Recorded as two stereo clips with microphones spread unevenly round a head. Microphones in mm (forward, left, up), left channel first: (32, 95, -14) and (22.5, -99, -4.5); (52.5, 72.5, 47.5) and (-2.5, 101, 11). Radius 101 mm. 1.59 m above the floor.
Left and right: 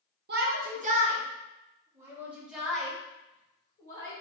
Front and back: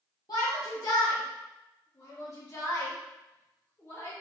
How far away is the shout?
About 1.1 m.